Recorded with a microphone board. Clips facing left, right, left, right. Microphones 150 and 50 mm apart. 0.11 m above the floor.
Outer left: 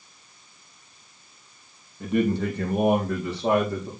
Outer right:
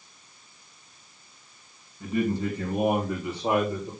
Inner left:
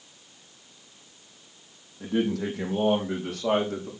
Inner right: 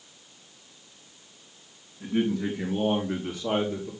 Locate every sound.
2.0 s a man speaking: 70° left (ahead or behind), 3.5 m; by 3.9 s 75° left (ahead or behind), 4 m